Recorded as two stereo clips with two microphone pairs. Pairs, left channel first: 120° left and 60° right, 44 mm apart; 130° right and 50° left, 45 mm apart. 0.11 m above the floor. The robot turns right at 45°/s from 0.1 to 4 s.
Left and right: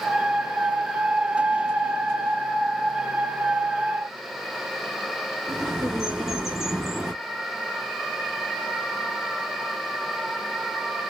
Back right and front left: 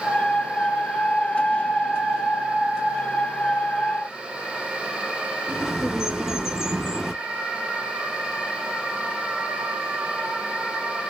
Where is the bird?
Straight ahead, 1.5 m.